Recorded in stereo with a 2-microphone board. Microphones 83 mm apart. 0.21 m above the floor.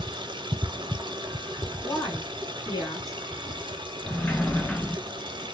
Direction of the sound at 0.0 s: 75° right (ahead or behind).